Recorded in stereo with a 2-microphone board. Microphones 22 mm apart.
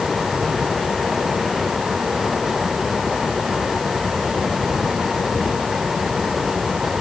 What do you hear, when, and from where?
Only background noise.